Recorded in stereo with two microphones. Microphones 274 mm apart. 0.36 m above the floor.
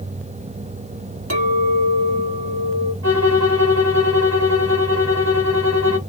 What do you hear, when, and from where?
1.3 s a clink: 60° right (ahead or behind), 1.8 m
3.0 s a violin: 65° right (ahead or behind), 1.9 m